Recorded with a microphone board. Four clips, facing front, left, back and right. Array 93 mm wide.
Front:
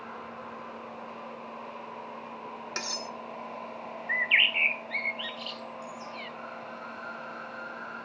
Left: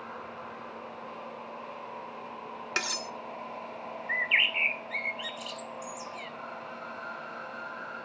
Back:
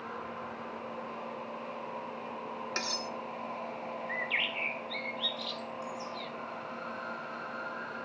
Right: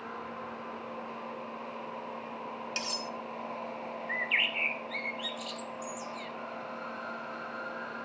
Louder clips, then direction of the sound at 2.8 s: Left 7 dB, front 1 dB; 85° left.